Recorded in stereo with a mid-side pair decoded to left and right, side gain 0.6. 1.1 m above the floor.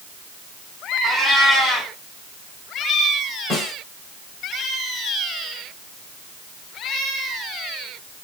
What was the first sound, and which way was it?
A cat meowing, 10° left.